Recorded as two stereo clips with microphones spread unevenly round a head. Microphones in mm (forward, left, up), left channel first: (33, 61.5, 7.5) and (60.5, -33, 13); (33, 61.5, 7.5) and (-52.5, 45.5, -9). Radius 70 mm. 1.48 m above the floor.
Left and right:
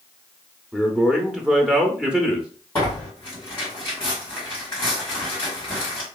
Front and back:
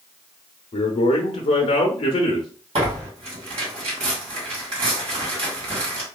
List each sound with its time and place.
0.7 s a man speaking: 10° left, 0.5 m
2.8 s tearing paper: straight behind, 1.9 m